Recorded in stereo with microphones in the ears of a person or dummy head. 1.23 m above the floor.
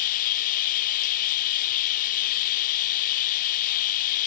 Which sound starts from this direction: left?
Running water, at 0.0 s.